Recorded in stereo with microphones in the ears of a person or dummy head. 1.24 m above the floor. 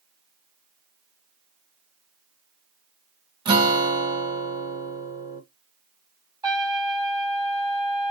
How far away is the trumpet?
About 1.9 m.